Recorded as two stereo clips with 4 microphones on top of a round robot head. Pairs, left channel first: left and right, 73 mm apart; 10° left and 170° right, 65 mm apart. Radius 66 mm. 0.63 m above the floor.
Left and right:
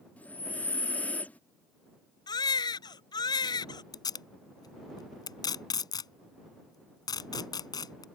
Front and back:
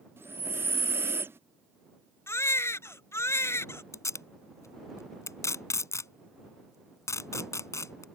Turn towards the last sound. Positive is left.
turn(degrees=60)